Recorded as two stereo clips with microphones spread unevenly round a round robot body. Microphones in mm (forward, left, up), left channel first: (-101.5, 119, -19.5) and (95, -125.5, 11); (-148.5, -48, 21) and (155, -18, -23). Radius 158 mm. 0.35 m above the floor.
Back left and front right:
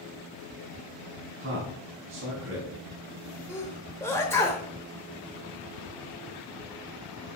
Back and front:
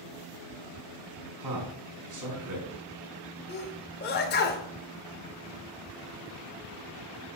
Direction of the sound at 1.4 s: Straight ahead.